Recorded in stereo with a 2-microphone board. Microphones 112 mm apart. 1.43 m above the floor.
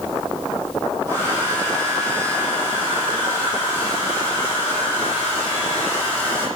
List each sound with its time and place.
1.1 s a hair dryer: 20° left (ahead or behind), 8 m